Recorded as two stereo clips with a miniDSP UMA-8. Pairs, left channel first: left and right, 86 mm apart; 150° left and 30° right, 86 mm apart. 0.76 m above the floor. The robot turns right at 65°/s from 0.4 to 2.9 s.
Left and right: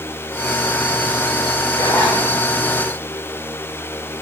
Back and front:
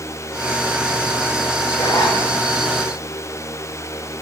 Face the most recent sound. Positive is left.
turn(degrees=-145)